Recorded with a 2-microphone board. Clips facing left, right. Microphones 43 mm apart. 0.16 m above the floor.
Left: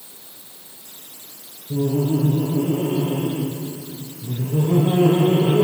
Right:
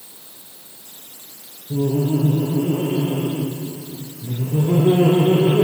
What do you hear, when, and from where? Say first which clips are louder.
1.7 s laughter: right 1 dB; 30° right (ahead or behind), 2.5 m